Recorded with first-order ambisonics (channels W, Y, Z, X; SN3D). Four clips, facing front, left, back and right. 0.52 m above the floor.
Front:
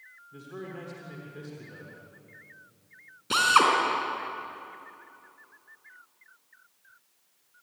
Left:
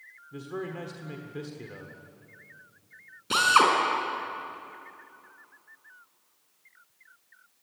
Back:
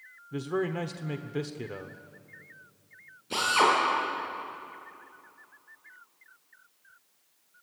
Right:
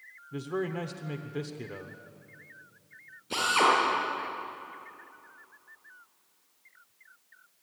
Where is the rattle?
No rattle in this recording.